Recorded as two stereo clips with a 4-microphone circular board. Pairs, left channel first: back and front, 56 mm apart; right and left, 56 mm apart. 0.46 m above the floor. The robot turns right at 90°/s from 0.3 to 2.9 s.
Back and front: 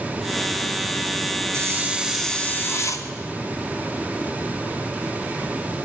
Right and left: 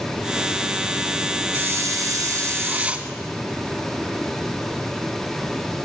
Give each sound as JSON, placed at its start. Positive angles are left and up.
{"t": 1.5, "sound": "a hiss", "azimuth_deg": 35, "distance_m": 1.7}